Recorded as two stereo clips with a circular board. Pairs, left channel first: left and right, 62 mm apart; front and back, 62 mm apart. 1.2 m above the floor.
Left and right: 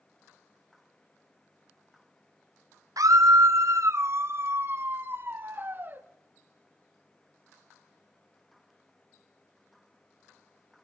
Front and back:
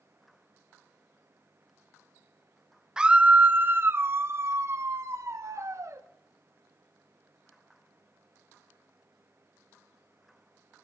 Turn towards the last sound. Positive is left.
turn(degrees=-150)